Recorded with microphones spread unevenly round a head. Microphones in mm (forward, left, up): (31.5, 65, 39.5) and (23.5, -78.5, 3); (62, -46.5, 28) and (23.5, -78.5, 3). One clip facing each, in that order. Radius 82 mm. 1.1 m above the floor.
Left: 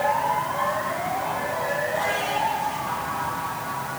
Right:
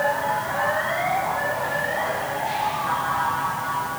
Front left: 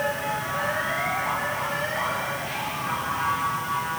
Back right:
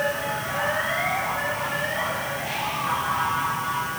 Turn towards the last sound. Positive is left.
No sound to turn to.